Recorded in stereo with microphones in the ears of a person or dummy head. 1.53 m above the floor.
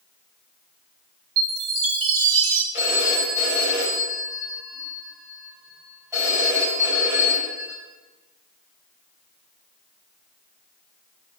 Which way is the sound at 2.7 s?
20° right (ahead or behind).